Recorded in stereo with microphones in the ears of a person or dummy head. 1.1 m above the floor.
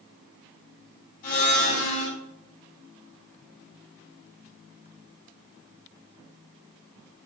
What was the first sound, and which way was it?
A blender, 45° left (ahead or behind).